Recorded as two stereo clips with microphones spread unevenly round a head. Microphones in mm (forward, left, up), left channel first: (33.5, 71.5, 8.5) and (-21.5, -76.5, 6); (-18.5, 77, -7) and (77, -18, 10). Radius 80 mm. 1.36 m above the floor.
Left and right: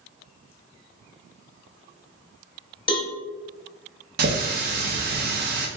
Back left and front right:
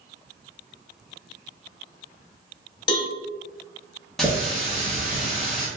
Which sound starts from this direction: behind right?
A running tap, at 4.2 s.